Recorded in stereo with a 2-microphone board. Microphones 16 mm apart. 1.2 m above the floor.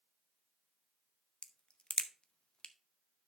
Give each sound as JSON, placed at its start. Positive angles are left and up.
{"t": 1.4, "sound": "a crack", "side_deg": 70, "distance_m": 0.7}